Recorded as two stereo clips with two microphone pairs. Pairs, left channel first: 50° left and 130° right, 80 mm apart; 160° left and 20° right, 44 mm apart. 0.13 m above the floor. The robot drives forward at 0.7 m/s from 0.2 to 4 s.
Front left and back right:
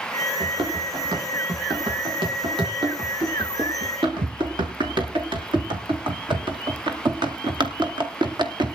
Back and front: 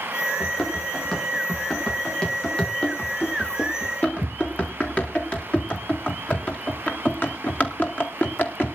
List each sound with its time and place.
0.4 s running footsteps: 115° right, 5.5 m; by 8.8 s 155° right, 2 m